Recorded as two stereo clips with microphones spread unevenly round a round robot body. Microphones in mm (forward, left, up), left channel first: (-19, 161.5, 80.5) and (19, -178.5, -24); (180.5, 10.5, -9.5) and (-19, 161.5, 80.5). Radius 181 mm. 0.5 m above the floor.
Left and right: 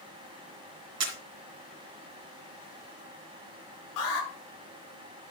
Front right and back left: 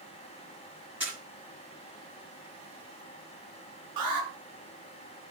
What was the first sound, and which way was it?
A camera shutter, 130° right.